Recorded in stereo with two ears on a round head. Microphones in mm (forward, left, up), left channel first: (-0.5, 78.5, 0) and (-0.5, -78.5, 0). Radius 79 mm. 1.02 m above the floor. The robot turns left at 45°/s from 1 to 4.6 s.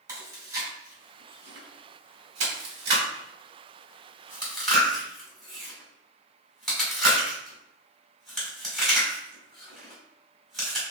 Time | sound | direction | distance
0.1 | chewing | 20° right (ahead or behind) | 1.4 m